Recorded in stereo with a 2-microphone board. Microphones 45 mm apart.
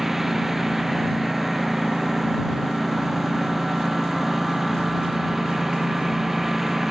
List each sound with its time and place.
0.0 s a lawn mower: 10° right (ahead or behind)